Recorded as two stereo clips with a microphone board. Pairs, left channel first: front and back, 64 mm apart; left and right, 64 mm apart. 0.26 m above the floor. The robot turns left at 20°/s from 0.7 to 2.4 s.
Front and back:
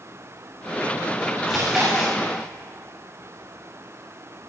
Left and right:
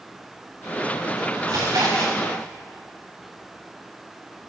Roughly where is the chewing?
Right.